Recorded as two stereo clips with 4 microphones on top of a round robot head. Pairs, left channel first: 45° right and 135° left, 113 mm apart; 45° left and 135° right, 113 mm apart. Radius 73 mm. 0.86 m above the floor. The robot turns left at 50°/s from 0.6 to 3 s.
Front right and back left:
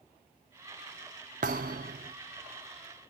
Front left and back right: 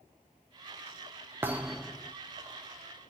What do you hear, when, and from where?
1.4 s a thud: 155° left, 0.5 m; by 2.1 s 120° left, 0.5 m